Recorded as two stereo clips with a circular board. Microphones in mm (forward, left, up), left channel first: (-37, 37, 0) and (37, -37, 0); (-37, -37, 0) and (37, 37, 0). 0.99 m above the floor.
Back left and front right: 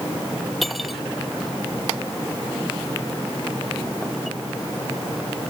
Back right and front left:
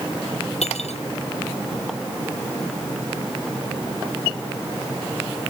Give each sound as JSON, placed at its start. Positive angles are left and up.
{"t": 0.6, "sound": "cutlery clinking", "azimuth_deg": -135}